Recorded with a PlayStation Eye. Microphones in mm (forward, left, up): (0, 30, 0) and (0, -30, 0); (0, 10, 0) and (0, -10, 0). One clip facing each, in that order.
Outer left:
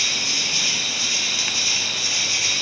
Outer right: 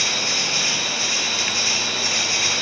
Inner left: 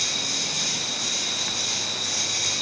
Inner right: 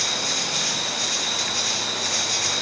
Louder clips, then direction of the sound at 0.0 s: Outer right 2 dB, inner right 2 dB; 35° right (ahead or behind).